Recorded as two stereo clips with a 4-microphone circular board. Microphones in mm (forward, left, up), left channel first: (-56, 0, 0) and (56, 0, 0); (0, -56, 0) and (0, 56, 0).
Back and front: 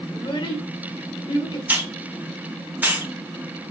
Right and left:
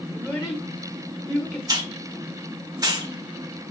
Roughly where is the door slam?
No door slam in this recording.